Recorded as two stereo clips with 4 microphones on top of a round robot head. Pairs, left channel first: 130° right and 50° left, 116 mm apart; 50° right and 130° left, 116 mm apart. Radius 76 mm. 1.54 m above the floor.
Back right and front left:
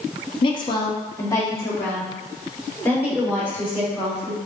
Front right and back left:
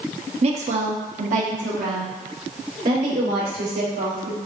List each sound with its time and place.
0.4 s a woman speaking: 175° left, 0.5 m; by 4.4 s 150° left, 3 m